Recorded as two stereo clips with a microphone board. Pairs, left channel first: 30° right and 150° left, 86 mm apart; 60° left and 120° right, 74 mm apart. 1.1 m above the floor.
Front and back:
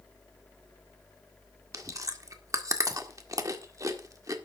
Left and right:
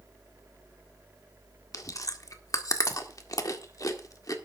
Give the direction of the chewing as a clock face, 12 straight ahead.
9 o'clock.